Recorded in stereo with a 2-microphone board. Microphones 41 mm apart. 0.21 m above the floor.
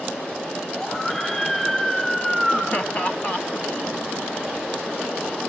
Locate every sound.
0.8 s a scream: 15° left (ahead or behind), 6 m
2.7 s laughter: 30° left (ahead or behind), 1.6 m